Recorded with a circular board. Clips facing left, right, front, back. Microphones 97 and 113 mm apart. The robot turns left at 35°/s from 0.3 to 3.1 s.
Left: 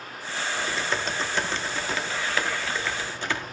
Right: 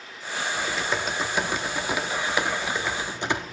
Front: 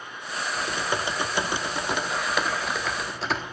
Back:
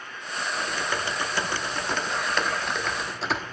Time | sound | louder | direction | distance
0.6 | typing on a keyboard | right 1 dB, front 2 dB | 5° right | 0.9 m